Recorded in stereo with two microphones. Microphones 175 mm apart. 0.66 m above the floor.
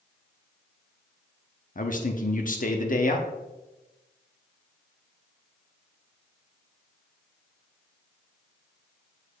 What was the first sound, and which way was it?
A man speaking, 50° left (ahead or behind).